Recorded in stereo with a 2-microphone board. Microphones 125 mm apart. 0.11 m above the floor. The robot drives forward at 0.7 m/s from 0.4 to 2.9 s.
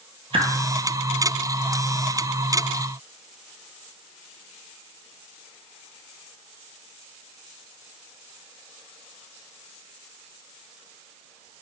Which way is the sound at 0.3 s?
50° right (ahead or behind).